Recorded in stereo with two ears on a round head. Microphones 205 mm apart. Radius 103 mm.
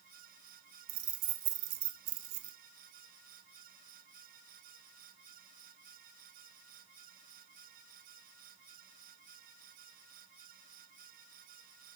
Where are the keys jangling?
70° right (ahead or behind), 1.3 m.